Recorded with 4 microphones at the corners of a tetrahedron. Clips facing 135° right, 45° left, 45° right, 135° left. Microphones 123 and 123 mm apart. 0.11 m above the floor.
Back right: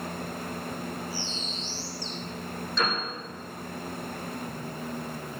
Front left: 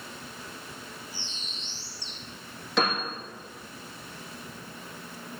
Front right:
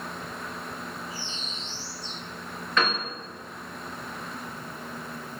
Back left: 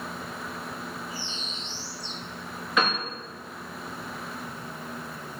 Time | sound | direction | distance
1.1 | a bird | 65° left | 7 m
2.8 | a piano | 55° left | 7.5 m